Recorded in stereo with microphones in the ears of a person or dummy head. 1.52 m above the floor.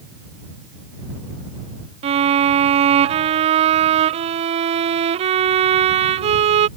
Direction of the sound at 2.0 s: 35° right (ahead or behind).